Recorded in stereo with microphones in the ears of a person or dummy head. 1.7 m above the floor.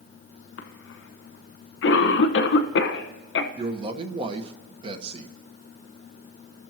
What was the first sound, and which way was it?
A cough, 75° left (ahead or behind).